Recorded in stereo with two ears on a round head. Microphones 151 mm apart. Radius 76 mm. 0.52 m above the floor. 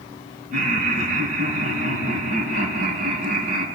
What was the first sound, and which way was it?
Laughter, 45° right (ahead or behind).